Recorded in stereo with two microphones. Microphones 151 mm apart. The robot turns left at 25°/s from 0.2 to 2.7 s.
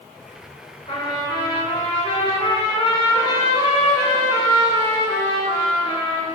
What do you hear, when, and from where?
0.9 s a trumpet: 105° left, 0.7 m; by 6.2 s 60° left, 0.7 m